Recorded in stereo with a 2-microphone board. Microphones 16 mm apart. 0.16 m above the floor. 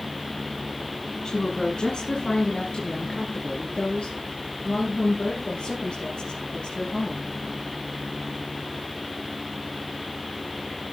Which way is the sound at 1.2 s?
40° left (ahead or behind).